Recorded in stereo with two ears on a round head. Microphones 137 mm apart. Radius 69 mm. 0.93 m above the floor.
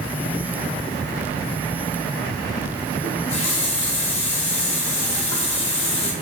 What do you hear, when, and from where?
3.0 s a running tap: 40° left (ahead or behind), 1.2 m